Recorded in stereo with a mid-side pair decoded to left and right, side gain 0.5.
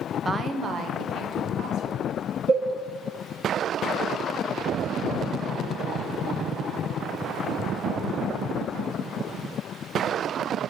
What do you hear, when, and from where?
0.2 s a woman speaking: 25° right, 0.6 m; by 2.1 s 65° right, 1.8 m
2.5 s a cowbell: 60° right, 2 m